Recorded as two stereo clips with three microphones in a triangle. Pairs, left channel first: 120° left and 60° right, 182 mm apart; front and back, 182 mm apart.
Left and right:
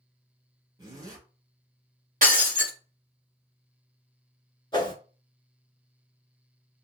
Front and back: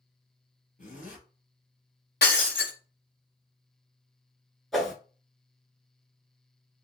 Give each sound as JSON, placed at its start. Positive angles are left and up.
{"t": 0.8, "sound": "a zipper", "azimuth_deg": 0, "distance_m": 1.5}
{"t": 2.2, "sound": "breaking glass", "azimuth_deg": -20, "distance_m": 1.3}
{"t": 4.7, "sound": "a whoosh", "azimuth_deg": 85, "distance_m": 0.7}